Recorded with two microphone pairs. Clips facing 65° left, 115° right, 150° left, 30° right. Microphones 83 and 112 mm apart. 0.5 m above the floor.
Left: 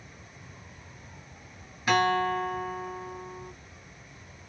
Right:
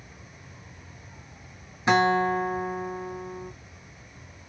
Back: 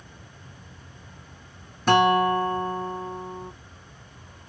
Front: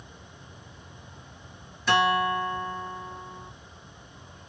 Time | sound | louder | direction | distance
1.9 | a guitar | right 3 dB, back 5 dB | straight behind | 0.5 m